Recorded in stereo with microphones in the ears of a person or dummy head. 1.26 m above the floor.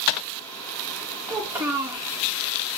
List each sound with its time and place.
1.3 s a child speaking: 15° right (ahead or behind), 0.9 m